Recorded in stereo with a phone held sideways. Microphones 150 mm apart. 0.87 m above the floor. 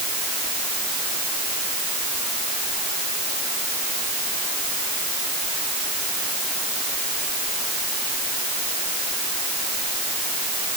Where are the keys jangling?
No keys jangling in this recording.